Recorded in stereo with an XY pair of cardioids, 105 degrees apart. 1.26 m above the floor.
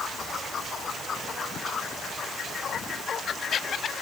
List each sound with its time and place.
Only background noise.